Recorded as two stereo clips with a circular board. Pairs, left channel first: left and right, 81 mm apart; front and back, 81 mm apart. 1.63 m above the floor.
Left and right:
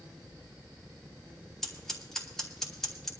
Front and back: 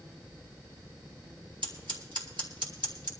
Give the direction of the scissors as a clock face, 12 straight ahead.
6 o'clock.